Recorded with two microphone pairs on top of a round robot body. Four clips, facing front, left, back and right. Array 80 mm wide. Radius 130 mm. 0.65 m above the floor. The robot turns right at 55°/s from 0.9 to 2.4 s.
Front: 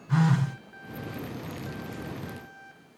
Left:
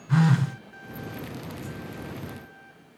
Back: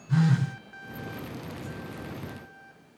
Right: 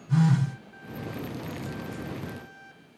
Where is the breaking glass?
I don't hear breaking glass.